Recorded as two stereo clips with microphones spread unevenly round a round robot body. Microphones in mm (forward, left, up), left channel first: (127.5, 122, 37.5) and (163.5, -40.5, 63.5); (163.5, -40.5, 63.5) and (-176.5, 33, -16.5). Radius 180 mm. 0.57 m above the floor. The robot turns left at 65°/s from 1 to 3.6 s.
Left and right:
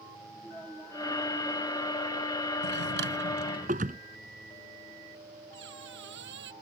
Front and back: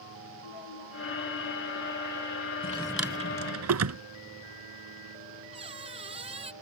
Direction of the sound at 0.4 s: 20° left.